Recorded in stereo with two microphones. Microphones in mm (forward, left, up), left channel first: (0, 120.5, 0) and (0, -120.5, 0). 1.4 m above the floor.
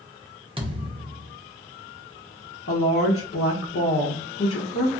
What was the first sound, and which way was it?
A thud, 20° right (ahead or behind).